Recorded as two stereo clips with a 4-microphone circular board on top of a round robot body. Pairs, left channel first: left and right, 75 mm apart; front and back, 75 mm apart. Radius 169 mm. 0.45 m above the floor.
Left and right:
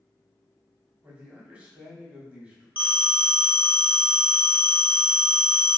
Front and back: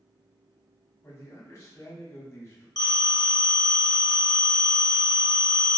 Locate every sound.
1.0 s a man speaking: 25° right, 1.4 m
2.8 s a phone ringing: 25° right, 1.0 m